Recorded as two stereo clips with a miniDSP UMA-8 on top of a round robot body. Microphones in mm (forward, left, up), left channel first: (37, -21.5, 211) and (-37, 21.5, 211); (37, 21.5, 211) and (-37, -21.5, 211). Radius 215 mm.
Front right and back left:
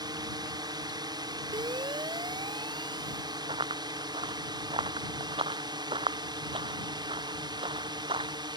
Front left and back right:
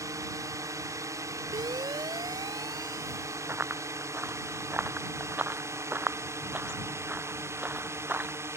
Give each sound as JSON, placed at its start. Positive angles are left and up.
{"t": 0.0, "sound": "a drone", "azimuth_deg": 170}
{"t": 1.5, "sound": "a siren", "azimuth_deg": 180}
{"t": 3.5, "sound": "running footsteps", "azimuth_deg": 145}